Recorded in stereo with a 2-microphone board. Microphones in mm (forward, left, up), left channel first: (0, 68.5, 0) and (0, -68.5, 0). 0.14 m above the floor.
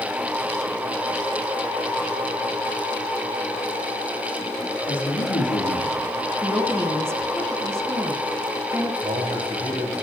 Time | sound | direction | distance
4.9 | a man speaking | 70° left (ahead or behind) | 6 m
6.4 | a woman speaking | 20° right (ahead or behind) | 1.1 m
9.0 | a man speaking | 50° right (ahead or behind) | 5 m